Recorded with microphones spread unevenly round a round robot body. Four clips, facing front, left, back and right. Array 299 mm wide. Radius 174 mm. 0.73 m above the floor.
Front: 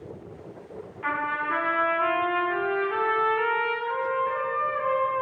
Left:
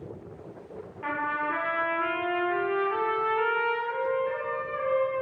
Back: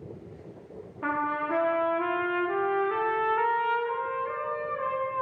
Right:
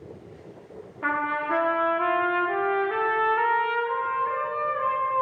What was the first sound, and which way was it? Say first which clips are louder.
A trumpet: right 3 dB, even; 150° right.